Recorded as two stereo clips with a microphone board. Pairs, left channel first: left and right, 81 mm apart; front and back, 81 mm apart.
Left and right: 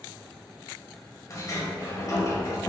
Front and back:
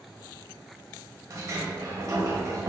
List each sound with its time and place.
1.3 s a sliding door: 135° left, 0.7 m